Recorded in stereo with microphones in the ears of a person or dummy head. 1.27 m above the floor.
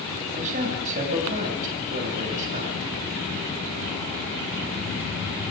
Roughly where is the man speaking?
Right.